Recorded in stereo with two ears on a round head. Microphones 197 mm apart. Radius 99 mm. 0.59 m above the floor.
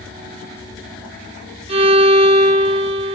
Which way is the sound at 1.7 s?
25° right (ahead or behind).